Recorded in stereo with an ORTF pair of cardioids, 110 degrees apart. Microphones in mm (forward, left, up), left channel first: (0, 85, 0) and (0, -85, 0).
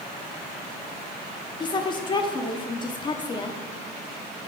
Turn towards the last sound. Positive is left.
turn(degrees=30)